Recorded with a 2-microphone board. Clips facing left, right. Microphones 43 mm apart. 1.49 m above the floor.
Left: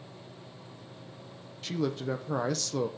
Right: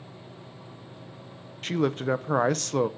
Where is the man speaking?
45° right (ahead or behind), 0.5 m.